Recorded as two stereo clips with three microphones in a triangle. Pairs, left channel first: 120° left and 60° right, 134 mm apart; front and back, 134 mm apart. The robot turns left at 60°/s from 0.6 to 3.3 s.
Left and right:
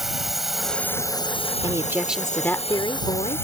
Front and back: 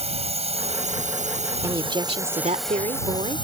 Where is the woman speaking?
115° right; by 3.5 s 145° left.